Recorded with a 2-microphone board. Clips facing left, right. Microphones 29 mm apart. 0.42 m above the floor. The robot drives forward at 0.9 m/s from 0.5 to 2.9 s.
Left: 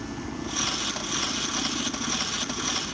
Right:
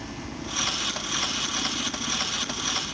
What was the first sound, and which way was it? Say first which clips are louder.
A helicopter: left 2 dB; 20° left (ahead or behind).